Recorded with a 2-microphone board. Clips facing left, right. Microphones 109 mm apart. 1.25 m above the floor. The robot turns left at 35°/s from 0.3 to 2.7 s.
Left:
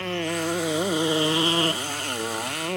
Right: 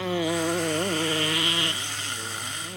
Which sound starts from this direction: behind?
A motorcycle, at 0.0 s.